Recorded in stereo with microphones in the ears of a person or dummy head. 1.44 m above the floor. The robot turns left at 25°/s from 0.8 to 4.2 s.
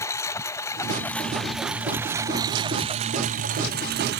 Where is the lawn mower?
20° left; by 4.2 s 65° right.